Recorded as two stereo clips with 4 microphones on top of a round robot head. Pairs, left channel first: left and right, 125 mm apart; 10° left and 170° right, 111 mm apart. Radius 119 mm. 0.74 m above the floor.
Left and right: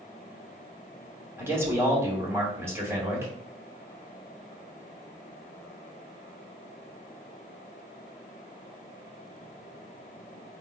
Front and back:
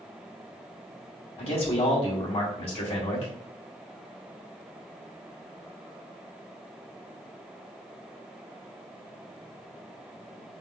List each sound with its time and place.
1.4 s a man speaking: 20° right, 2.5 m